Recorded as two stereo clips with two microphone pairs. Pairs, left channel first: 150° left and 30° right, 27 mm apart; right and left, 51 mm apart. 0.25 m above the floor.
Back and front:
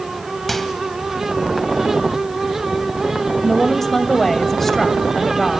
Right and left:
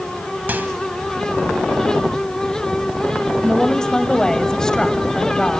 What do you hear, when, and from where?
0.5 s a microwave: 65° left, 1.1 m
3.4 s a woman speaking: 140° right, 1.0 m